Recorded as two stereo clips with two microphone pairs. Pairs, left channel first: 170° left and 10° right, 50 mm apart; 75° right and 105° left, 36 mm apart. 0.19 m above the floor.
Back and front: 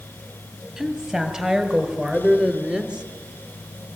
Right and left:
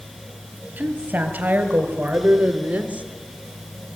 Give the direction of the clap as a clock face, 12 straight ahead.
I don't hear a clap.